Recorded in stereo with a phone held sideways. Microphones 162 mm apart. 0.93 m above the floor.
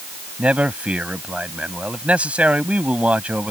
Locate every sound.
0.4 s a man speaking: 10° right (ahead or behind)